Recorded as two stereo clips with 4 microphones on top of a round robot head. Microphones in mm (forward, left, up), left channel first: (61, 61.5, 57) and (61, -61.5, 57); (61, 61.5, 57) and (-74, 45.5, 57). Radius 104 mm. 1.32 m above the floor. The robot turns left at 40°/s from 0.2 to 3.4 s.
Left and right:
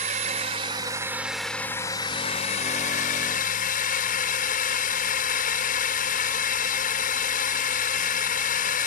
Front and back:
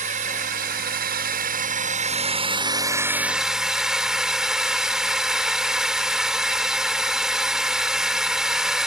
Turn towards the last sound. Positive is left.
turn(degrees=100)